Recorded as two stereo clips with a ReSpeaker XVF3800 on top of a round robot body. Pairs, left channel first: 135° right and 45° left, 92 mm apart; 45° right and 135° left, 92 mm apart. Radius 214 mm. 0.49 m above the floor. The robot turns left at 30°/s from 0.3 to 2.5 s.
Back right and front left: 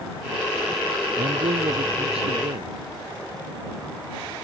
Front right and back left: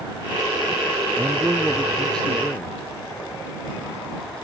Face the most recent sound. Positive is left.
turn(degrees=30)